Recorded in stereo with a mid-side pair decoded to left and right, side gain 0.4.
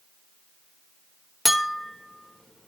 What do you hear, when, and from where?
1.4 s a clink: 5° left, 1.0 m